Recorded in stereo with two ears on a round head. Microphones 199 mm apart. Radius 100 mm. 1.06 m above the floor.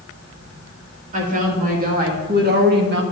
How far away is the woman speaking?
About 2 m.